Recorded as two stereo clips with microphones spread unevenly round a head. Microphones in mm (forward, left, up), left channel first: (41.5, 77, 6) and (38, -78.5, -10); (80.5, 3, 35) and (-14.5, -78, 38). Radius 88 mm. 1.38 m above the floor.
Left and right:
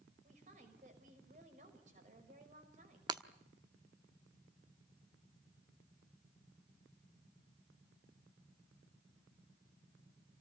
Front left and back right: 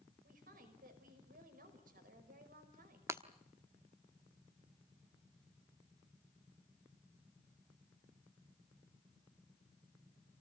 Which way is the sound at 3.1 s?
115° right.